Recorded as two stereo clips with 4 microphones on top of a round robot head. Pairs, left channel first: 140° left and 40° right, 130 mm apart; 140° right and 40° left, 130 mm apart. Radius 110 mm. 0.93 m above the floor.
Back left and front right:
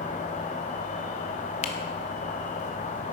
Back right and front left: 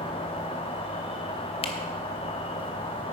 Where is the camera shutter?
175° left, 0.8 m.